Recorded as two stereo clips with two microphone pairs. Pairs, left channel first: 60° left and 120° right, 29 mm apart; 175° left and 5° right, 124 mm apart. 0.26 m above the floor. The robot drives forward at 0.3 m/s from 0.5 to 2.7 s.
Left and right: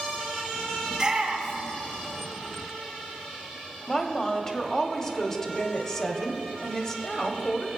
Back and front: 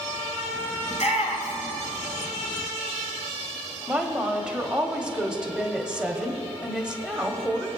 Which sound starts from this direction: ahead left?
A woman speaking, at 3.9 s.